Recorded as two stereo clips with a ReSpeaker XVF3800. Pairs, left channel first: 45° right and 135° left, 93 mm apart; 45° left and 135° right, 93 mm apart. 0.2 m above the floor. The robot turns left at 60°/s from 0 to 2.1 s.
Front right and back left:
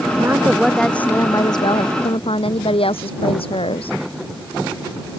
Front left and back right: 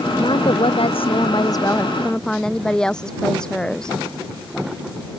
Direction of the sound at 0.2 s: 80° left.